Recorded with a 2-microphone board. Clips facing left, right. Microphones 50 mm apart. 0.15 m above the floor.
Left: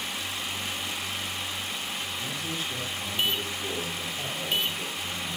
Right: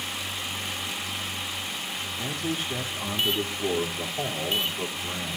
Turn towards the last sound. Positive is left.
turn(degrees=-35)  # may be behind; listen again after turning